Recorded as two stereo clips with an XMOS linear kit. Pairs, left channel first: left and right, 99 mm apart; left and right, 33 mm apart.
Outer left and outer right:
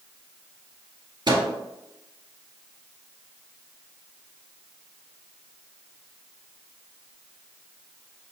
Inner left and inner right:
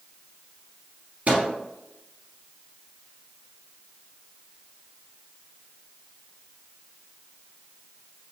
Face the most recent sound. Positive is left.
turn(degrees=-50)  # may be behind; listen again after turning